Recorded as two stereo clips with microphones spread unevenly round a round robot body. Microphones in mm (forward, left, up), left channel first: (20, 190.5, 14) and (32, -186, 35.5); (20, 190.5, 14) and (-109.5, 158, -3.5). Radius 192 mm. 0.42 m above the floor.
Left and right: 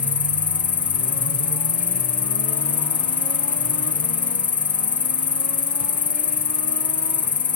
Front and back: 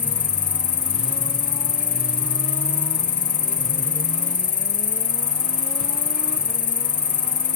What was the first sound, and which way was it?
An insect, 20° left.